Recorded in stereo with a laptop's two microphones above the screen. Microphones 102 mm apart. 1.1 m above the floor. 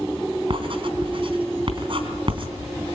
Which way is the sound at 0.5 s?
55° right (ahead or behind).